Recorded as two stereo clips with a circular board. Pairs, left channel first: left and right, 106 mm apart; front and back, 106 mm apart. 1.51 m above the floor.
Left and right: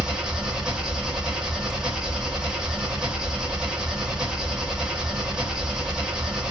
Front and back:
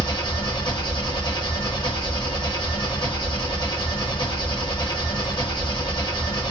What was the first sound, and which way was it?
An engine running, 5° right.